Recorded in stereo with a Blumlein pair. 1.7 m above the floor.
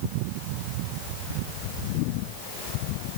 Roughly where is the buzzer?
I don't hear a buzzer.